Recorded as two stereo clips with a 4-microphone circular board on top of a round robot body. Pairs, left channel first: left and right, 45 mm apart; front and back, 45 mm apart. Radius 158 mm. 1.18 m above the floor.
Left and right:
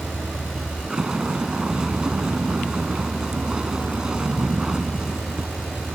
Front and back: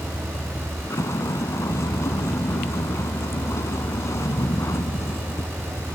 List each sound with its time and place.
0.0 s a vehicle: 15° right